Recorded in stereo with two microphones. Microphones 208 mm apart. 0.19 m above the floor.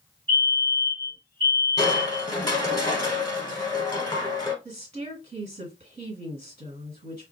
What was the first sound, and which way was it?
A fire alarm, 25° right (ahead or behind).